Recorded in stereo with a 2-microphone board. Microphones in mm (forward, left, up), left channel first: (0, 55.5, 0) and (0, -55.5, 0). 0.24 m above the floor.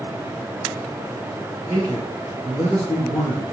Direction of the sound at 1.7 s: 70° left (ahead or behind).